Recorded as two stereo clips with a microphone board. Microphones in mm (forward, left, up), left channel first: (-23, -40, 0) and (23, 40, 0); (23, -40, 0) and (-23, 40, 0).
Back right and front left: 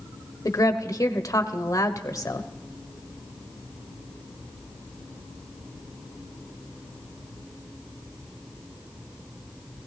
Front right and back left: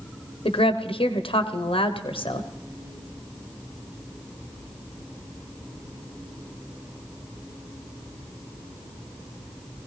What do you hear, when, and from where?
0.5 s a woman speaking: 65° right, 1.0 m